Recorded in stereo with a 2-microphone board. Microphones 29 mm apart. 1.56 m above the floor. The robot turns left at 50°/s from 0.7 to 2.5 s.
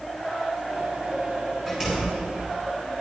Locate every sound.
1.7 s a door slam: 15° right (ahead or behind), 4.5 m; by 2.2 s 40° right (ahead or behind), 4.5 m